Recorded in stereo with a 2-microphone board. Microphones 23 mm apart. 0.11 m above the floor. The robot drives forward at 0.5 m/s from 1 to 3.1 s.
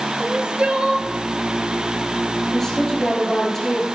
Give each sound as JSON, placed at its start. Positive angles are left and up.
{"t": 0.2, "sound": "crying", "side_deg": -45, "distance_m": 1.1}
{"t": 2.5, "sound": "a woman speaking", "side_deg": 20, "distance_m": 3.5}